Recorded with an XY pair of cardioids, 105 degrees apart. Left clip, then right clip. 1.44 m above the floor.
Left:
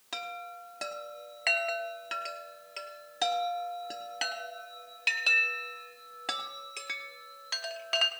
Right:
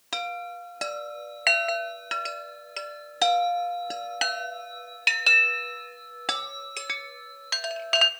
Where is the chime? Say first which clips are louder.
Right 7 dB; 40° right, 0.9 m.